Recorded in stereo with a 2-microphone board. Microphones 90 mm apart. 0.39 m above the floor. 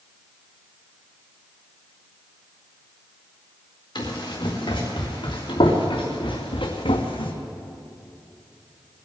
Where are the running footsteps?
55° left (ahead or behind), 4.5 m; by 7.3 s 80° left, 1.5 m.